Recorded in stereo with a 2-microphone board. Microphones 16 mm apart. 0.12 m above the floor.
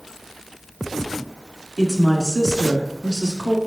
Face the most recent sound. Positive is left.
turn(degrees=20)  # may be behind; listen again after turning